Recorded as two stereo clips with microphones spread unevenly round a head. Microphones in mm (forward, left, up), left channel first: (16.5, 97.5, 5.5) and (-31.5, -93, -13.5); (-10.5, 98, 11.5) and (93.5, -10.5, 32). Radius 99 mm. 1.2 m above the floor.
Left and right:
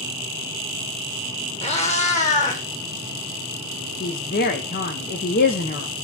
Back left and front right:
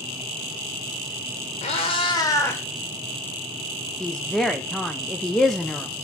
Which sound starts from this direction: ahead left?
A woman speaking, at 4.0 s.